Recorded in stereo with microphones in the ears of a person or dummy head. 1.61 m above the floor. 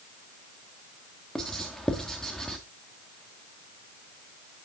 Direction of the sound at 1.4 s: Centre (ahead or behind).